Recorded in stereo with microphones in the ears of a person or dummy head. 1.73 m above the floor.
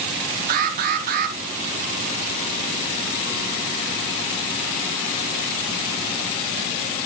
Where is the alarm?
50° right (ahead or behind), 3.5 m.